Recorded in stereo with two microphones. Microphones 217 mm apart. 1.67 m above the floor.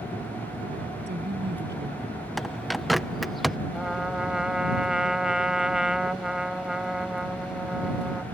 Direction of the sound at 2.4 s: Centre (ahead or behind).